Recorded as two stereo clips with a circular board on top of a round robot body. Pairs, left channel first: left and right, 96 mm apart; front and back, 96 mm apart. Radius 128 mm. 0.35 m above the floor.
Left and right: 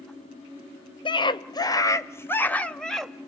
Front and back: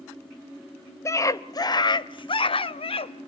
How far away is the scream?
About 2 m.